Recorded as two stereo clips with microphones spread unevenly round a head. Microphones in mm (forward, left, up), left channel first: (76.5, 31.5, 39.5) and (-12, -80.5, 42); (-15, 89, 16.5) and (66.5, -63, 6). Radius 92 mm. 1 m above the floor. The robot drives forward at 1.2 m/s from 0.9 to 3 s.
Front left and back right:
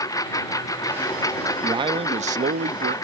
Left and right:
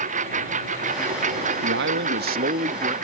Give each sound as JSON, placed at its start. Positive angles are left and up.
{"t": 0.0, "sound": "a lawn mower", "azimuth_deg": -15}
{"t": 1.6, "sound": "a man speaking", "azimuth_deg": -65}